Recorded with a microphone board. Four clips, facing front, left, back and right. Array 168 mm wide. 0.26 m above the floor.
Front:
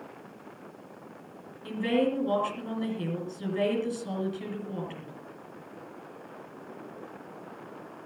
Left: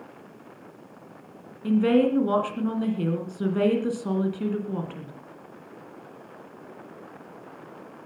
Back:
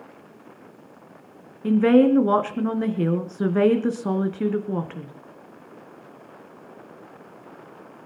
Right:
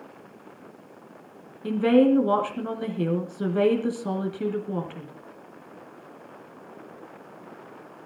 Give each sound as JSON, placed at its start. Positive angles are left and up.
{"t": 1.6, "sound": "a woman speaking", "azimuth_deg": -165, "distance_m": 3.5}